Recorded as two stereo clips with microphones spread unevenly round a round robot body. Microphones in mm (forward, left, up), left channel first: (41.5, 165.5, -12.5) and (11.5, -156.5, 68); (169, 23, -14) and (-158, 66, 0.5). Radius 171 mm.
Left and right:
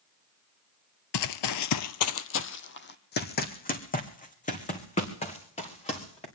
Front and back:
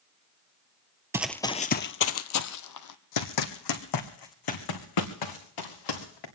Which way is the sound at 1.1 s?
100° left.